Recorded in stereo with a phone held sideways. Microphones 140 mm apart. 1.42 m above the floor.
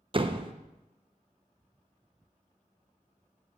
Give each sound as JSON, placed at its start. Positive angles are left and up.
{"t": 0.1, "sound": "a door slam", "side_deg": -35, "distance_m": 0.5}